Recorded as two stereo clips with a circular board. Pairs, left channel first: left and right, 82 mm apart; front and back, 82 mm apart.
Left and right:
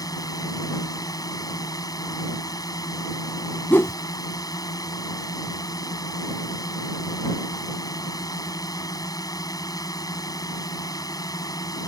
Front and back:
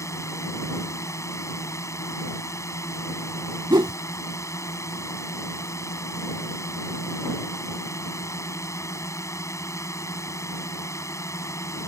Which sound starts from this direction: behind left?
A whoosh, at 3.7 s.